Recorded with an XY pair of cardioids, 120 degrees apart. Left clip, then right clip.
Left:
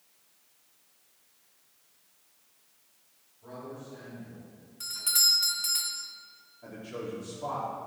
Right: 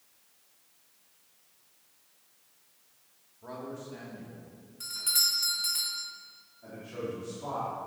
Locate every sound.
3.4 s a man speaking: 40° right, 3.5 m; by 4.5 s 65° right, 2.5 m
4.8 s a doorbell: 15° left, 1.4 m
6.6 s a man speaking: 30° left, 3 m